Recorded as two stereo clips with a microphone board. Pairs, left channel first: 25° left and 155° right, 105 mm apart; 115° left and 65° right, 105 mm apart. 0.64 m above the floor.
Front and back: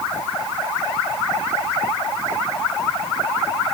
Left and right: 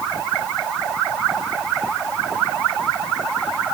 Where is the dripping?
I don't hear dripping.